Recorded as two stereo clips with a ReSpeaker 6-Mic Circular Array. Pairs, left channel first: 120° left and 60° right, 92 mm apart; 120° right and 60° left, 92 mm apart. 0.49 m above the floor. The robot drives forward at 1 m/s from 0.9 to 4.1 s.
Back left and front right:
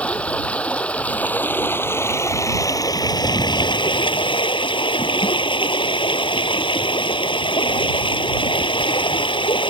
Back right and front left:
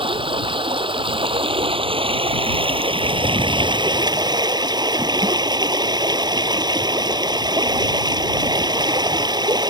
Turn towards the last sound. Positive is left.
turn(degrees=100)